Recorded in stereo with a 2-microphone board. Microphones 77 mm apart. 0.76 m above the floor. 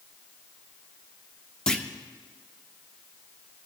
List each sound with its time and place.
1.7 s a clunk: 10° left (ahead or behind), 0.8 m